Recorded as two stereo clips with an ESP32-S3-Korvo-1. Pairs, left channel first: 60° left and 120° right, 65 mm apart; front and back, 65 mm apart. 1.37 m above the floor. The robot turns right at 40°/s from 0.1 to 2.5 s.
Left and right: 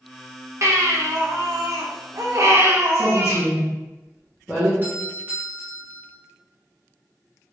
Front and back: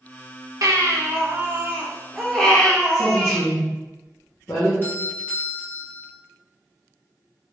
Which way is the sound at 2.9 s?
35° right.